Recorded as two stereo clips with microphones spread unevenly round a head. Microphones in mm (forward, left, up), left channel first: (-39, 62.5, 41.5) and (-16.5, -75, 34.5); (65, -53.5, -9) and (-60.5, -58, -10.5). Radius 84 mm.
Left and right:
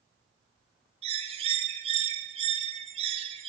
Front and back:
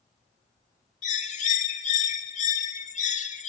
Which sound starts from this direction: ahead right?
A bird, at 1.0 s.